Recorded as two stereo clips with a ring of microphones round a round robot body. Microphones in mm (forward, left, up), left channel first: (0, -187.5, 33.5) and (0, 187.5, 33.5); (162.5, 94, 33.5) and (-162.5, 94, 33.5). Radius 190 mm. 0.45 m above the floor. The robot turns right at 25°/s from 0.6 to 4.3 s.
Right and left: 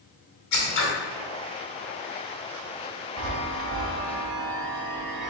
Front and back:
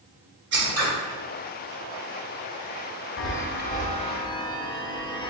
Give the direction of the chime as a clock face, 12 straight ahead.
10 o'clock.